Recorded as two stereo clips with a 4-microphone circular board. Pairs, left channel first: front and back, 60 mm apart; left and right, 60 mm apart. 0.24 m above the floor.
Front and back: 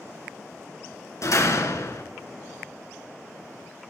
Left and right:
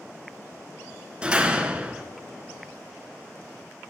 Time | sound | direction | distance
1.2 | a door slam | 20° right | 1.7 m